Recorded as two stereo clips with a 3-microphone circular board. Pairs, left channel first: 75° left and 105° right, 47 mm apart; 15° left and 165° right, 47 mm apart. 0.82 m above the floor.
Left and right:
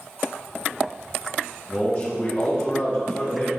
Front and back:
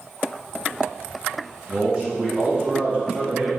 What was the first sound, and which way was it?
A man speaking, 135° left.